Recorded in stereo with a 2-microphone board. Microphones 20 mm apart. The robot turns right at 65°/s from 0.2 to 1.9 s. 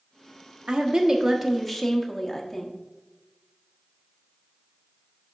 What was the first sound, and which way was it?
A woman speaking, 65° right.